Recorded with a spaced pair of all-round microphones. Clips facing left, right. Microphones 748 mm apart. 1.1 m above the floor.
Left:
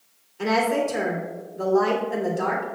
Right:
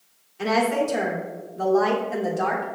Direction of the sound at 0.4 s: 35° right (ahead or behind).